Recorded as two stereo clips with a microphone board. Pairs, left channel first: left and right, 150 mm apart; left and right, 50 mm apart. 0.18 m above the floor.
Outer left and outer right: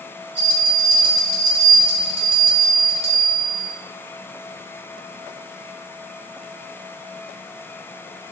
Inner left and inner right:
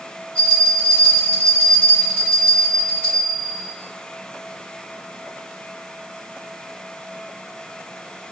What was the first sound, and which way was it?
A bell, 30° left (ahead or behind).